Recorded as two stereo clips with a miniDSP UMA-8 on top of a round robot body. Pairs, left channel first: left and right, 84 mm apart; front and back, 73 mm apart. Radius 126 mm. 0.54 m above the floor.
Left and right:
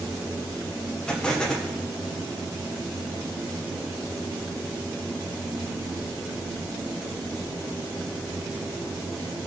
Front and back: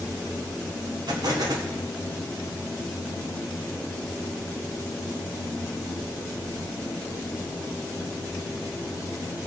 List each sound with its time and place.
1.1 s an explosion: 170° left, 1.8 m